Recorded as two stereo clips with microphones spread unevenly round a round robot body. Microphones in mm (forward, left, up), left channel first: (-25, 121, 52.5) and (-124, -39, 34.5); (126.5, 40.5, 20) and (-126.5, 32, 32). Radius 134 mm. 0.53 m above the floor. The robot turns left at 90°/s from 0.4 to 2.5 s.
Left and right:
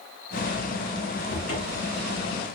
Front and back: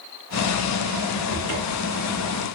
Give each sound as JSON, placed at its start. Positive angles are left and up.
{"t": 1.3, "sound": "a cupboard door", "azimuth_deg": 30, "distance_m": 1.6}